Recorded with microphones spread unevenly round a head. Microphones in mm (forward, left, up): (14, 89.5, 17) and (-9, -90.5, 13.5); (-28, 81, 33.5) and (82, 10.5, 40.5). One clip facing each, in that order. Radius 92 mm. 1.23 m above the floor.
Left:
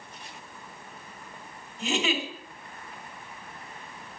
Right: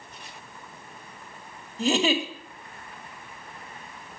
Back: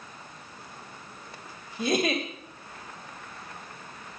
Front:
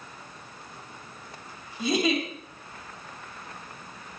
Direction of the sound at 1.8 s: 155° right.